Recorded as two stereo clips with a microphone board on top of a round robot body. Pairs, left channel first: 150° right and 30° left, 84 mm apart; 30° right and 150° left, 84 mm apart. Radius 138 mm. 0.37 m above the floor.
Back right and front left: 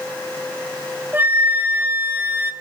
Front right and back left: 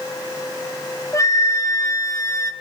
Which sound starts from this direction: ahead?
A flute, at 1.1 s.